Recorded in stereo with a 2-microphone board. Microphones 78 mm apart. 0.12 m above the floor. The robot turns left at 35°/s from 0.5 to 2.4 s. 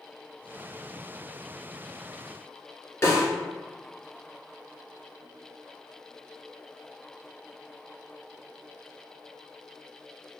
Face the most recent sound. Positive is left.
turn(degrees=30)  # may be behind; listen again after turning